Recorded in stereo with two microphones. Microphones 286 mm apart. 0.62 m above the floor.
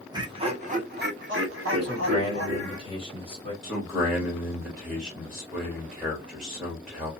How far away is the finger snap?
No finger snap in this recording.